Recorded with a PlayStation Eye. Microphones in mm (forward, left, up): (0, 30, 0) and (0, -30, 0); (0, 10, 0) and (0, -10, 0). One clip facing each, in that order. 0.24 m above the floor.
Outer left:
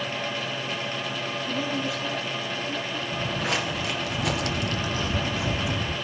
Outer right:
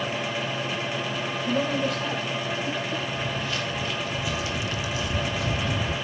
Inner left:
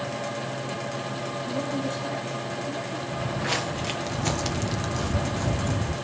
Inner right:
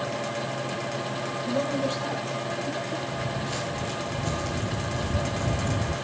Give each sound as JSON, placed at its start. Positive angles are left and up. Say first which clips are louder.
{"t": 1.5, "sound": "a woman speaking", "louder": "outer right 5 dB, inner right 3 dB", "side_deg": -55, "distance_m": 6.5}
{"t": 3.1, "sound": "footsteps", "louder": "outer left 2 dB, inner left 3 dB", "side_deg": 80, "distance_m": 1.4}